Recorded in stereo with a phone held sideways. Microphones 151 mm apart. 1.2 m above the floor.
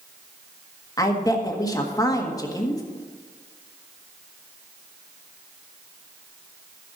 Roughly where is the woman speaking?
Left.